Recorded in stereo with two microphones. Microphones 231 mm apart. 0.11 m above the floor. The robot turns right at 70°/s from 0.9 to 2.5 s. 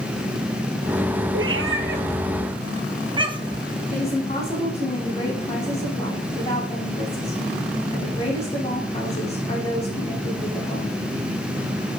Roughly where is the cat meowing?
Right.